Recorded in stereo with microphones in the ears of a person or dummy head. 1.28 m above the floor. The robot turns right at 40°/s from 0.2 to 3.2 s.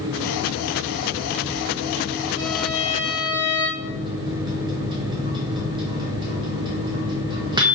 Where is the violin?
155° left, 2.5 m; by 3.7 s 175° right, 2.5 m.